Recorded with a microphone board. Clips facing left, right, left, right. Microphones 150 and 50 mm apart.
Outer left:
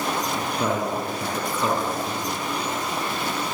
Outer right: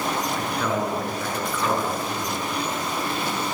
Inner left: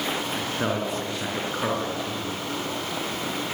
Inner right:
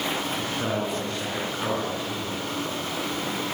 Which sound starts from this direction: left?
A man speaking, at 0.3 s.